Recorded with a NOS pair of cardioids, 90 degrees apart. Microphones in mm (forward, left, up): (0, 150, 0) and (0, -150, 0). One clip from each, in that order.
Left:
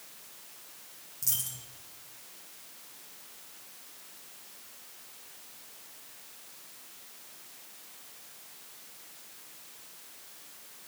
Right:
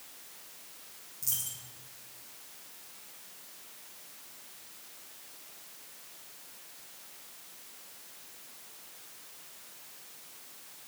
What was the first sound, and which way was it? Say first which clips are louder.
A dropped coin: left 2 dB; 30° left.